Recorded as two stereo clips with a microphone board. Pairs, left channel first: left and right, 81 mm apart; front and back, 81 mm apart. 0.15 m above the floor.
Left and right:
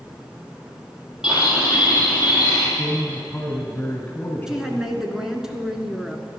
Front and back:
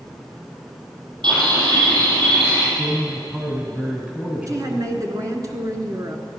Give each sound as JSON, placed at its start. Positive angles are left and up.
{"t": 1.2, "sound": "a bird", "azimuth_deg": -165, "distance_m": 4.0}
{"t": 2.8, "sound": "a man speaking", "azimuth_deg": 130, "distance_m": 1.7}
{"t": 4.5, "sound": "a woman speaking", "azimuth_deg": -170, "distance_m": 1.4}